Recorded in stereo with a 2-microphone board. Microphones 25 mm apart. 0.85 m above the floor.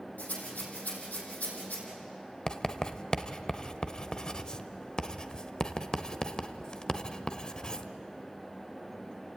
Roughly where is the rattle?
Left.